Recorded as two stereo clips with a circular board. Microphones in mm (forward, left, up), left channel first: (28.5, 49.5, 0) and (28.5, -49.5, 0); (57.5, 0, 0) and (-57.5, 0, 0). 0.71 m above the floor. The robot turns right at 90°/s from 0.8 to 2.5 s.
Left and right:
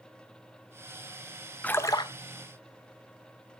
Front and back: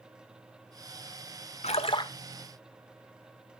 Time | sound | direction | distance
1.6 | a splash | 15° left | 0.5 m